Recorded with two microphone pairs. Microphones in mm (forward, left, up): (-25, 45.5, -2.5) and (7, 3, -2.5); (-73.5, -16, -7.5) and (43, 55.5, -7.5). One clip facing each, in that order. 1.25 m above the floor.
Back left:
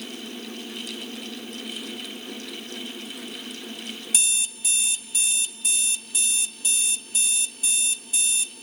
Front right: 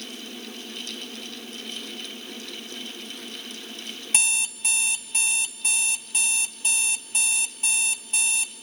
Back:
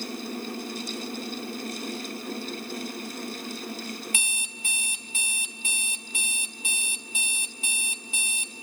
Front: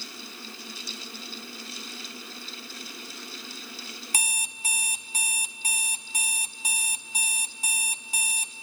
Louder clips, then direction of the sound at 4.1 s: Front right 4 dB, front 2 dB; 10° right.